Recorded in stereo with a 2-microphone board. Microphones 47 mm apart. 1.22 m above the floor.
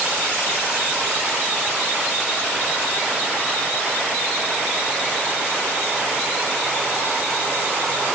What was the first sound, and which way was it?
Only background noise.